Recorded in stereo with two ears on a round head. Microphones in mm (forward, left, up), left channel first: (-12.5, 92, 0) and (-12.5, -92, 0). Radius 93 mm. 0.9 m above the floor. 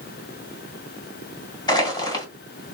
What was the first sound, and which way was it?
Crushing, 20° left (ahead or behind).